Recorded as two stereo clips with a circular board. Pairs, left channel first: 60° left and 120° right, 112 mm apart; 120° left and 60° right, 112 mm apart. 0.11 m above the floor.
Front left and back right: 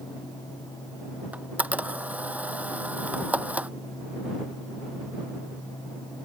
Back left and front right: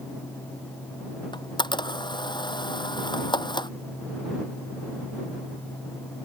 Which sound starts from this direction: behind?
A camera shutter, at 1.3 s.